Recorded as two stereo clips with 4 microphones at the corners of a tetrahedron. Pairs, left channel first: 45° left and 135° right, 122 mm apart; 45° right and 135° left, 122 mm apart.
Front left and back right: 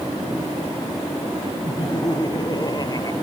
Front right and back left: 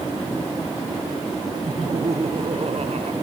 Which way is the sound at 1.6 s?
100° left.